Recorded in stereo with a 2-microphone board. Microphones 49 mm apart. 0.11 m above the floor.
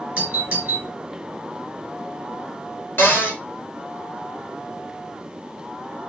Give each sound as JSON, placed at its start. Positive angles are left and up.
{"t": 0.2, "sound": "a doorbell", "side_deg": -25, "distance_m": 1.7}
{"t": 3.0, "sound": "a cupboard door", "side_deg": 45, "distance_m": 1.5}